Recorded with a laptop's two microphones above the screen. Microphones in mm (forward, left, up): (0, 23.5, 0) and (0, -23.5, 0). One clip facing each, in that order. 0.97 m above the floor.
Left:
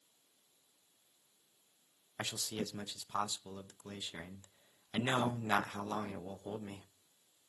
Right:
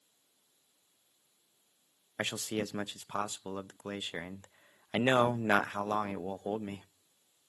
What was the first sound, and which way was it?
A man speaking, 45° right (ahead or behind).